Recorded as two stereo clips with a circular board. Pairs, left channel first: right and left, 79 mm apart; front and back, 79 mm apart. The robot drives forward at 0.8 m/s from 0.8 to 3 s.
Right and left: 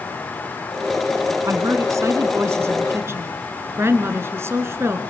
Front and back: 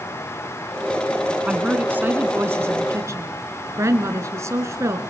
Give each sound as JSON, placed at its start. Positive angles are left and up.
{"t": 1.4, "sound": "a woman speaking", "azimuth_deg": 110, "distance_m": 2.0}